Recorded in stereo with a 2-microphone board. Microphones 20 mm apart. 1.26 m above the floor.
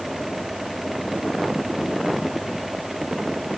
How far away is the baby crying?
I don't hear a baby crying.